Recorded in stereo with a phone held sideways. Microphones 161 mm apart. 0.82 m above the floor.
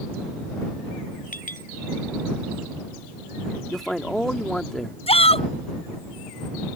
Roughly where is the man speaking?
Centre.